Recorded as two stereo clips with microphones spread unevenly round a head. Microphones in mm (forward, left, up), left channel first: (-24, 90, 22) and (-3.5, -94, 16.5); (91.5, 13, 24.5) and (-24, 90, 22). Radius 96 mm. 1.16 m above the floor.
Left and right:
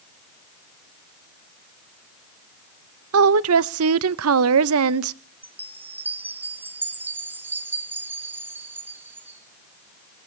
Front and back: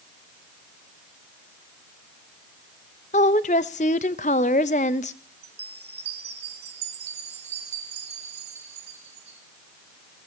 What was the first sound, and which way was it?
A woman speaking, 90° right.